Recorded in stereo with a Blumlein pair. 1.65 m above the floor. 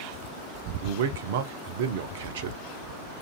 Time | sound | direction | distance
0.8 | a man speaking | 55° right | 0.5 m